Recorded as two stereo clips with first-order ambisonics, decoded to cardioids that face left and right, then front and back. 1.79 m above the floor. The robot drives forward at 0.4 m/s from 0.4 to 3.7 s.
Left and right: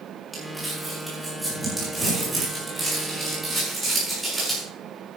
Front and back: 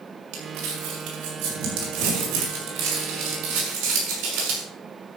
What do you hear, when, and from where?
0.3 s crumpling: straight behind, 4 m